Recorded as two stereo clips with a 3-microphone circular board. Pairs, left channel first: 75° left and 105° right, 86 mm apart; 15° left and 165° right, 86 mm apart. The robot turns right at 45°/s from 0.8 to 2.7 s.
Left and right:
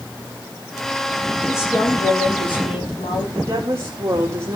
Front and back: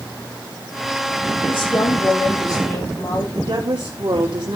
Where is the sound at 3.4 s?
160° right, 3 m.